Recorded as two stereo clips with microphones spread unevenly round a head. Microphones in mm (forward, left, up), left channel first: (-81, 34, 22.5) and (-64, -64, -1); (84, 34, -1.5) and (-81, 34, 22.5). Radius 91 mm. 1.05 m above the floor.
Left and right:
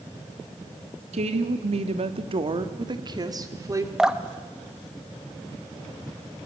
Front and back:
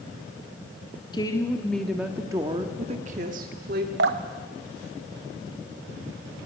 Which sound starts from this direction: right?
A woman speaking, at 1.1 s.